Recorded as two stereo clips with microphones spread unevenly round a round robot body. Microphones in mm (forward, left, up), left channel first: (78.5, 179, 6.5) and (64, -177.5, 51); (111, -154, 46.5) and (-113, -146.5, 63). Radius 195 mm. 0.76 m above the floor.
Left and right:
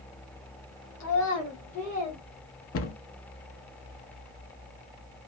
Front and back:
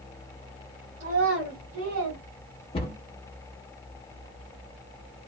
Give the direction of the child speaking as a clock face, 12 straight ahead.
8 o'clock.